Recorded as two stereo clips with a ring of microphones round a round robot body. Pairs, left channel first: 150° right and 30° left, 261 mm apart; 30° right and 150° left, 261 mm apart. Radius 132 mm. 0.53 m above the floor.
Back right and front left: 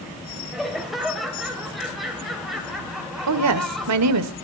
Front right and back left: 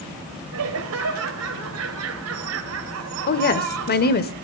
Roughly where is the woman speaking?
Ahead.